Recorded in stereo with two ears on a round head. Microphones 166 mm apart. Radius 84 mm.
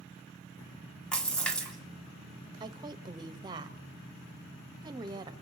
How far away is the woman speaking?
About 0.6 m.